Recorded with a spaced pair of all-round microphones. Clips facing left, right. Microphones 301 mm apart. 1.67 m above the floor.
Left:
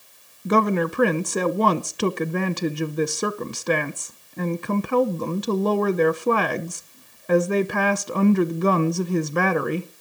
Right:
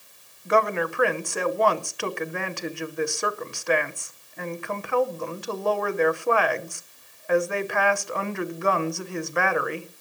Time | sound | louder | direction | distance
0.5 | a woman speaking | left 4 dB | 45° left (ahead or behind) | 0.8 m